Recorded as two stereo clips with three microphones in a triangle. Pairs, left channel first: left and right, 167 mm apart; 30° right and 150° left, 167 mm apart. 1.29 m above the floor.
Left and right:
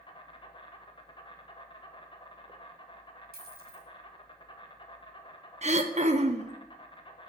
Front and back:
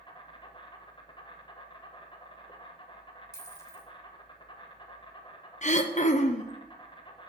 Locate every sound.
0.0 s an insect: 30° left, 1.0 m
3.3 s a dropped coin: 100° right, 1.8 m
5.6 s throat clearing: 55° right, 0.7 m